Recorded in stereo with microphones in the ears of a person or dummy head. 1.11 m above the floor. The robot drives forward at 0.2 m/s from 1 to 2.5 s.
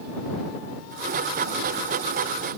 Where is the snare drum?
No snare drum in this recording.